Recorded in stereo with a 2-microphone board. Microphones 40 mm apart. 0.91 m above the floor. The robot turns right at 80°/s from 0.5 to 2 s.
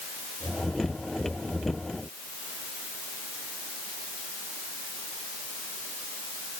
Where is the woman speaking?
No woman speaking in this recording.